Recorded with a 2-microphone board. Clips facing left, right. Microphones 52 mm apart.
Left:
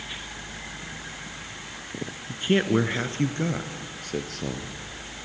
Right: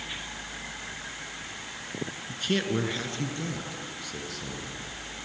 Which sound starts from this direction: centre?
A man speaking, at 2.3 s.